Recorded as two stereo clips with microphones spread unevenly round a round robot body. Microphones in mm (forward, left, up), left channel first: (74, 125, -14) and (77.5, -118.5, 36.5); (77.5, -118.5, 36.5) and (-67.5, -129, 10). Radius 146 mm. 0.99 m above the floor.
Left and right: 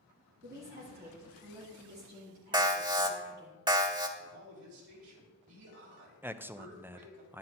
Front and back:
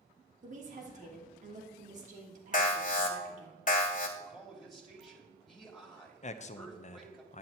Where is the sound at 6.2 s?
5° left, 0.6 m.